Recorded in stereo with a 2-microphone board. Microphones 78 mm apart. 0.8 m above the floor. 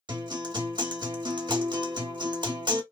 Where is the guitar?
70° right (ahead or behind), 1.1 m.